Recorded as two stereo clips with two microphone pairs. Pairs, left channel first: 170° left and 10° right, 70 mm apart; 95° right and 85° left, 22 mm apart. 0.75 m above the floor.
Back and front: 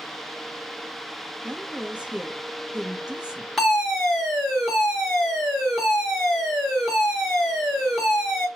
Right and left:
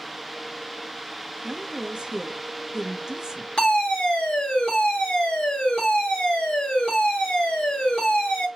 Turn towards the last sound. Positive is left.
turn(degrees=-100)